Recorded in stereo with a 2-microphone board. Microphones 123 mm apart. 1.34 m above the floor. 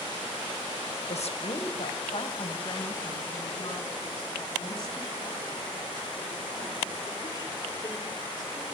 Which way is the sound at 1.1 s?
65° left (ahead or behind).